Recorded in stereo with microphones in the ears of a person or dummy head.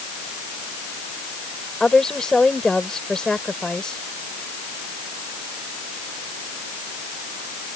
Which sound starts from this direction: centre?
A woman speaking, at 1.8 s.